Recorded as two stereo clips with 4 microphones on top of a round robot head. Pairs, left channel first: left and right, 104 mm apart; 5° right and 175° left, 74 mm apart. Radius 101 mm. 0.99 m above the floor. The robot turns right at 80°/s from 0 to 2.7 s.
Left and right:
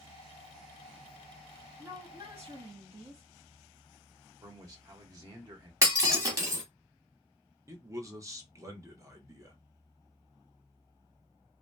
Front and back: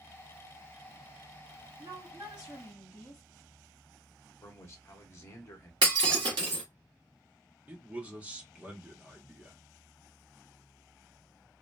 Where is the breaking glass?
150° right, 1.1 m.